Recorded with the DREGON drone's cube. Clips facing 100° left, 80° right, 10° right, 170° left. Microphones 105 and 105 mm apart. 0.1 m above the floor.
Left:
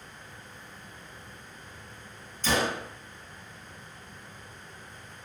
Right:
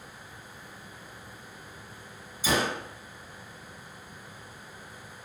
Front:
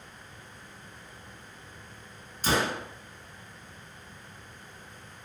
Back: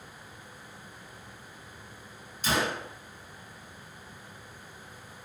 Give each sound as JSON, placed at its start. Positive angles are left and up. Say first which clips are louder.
{"t": 2.4, "sound": "a gunshot", "louder": "even, front 2 dB", "azimuth_deg": -5, "distance_m": 0.5}